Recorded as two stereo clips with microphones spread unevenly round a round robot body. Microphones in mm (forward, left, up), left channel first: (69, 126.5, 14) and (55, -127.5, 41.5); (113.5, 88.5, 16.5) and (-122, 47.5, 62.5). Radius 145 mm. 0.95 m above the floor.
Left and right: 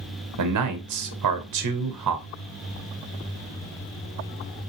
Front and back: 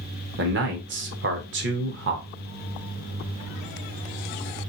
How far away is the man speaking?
About 0.6 m.